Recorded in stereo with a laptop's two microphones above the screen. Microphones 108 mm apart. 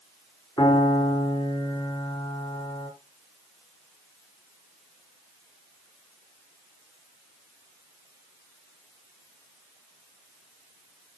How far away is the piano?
About 5.5 m.